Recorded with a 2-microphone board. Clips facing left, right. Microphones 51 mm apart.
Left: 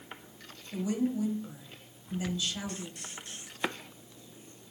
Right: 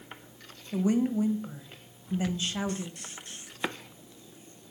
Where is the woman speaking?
35° right (ahead or behind), 1.1 m.